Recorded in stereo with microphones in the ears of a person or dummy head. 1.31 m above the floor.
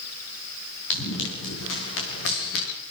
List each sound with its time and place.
0.9 s running footsteps: 80° left, 8.5 m